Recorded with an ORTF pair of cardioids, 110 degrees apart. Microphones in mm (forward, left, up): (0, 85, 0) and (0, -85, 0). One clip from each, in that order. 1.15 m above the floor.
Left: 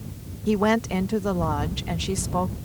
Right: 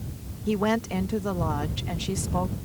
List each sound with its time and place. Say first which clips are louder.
0.5 s a woman speaking: left 4 dB; 20° left